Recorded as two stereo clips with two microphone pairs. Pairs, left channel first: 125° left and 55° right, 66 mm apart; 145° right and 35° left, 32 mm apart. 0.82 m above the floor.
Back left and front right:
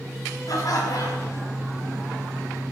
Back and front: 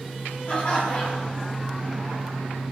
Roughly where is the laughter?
Behind left.